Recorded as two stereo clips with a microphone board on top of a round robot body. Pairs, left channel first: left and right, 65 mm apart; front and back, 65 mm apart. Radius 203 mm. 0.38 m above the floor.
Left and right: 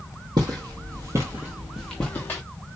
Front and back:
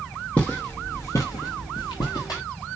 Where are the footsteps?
75° right, 0.9 m; by 2.4 s 30° left, 0.7 m.